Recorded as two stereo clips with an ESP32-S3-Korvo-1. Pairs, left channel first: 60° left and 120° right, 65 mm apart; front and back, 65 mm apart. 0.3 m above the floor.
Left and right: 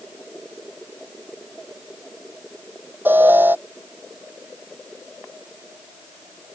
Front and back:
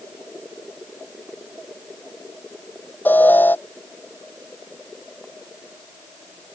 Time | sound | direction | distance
3.0 | an alarm | 60° right | ?